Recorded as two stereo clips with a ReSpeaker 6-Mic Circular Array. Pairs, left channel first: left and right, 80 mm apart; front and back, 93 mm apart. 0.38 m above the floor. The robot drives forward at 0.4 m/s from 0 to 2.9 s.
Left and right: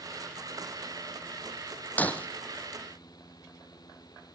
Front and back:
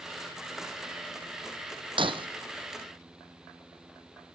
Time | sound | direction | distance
2.0 | breaking glass | 160° left | 1.3 m